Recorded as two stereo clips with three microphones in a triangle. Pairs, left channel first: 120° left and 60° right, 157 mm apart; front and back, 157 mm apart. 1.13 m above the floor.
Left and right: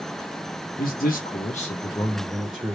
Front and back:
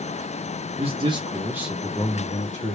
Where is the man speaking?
130° left, 1.3 m; by 2.8 s 15° left, 0.9 m.